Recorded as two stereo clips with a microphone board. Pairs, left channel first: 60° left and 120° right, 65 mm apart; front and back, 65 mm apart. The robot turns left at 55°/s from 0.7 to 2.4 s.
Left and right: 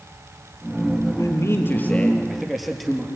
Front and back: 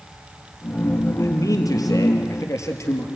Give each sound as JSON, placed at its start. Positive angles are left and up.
{"t": 1.2, "sound": "a man speaking", "azimuth_deg": 35, "distance_m": 3.5}